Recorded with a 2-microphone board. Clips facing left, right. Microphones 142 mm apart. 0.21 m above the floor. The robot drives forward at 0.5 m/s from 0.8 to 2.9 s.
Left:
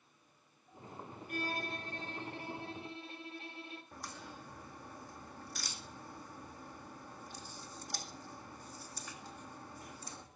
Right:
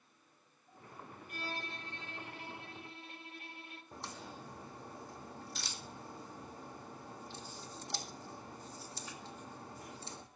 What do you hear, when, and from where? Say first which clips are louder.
1.3 s a violin: left 5 dB; 55° left (ahead or behind), 0.8 m; by 3.8 s 25° left (ahead or behind), 1.4 m
3.9 s a crack: right 1 dB; 25° right (ahead or behind), 1.5 m